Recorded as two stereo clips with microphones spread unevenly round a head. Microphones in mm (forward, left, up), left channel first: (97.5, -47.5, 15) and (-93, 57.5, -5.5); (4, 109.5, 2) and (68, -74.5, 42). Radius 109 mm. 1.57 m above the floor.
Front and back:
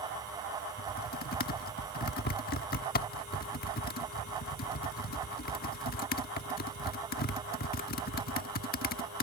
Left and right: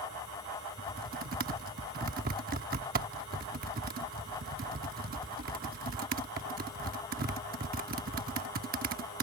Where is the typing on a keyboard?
60° right.